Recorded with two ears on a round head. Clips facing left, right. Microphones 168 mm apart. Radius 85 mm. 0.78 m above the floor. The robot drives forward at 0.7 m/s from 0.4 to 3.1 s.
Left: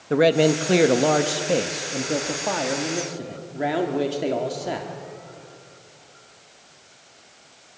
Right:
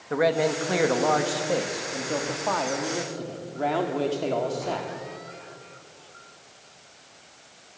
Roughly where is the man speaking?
Left.